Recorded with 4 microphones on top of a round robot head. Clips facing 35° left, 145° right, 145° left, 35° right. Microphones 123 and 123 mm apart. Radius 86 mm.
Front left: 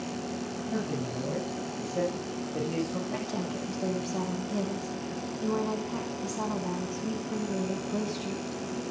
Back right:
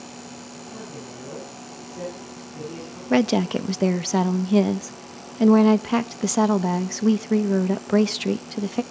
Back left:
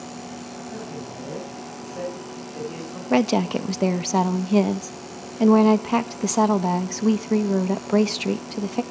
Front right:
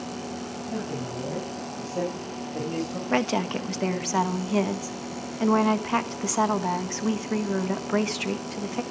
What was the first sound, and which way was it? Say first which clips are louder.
A man speaking: front left 6 dB, front right 4 dB; 25° left.